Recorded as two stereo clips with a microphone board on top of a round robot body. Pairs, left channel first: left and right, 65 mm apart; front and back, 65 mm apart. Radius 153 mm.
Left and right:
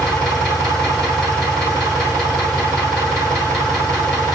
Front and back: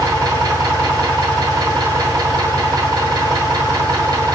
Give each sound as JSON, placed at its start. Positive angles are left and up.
{"t": 0.0, "sound": "an engine running", "azimuth_deg": 175, "distance_m": 1.6}